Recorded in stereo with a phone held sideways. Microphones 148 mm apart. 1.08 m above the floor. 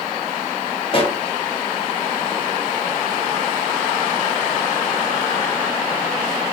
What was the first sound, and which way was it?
A pop, 40° left (ahead or behind).